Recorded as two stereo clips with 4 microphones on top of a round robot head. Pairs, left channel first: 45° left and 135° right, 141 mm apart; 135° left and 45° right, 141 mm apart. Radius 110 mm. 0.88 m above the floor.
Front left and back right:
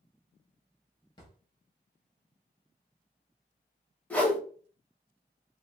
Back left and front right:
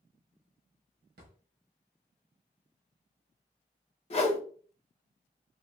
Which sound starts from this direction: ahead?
A drawer, at 1.2 s.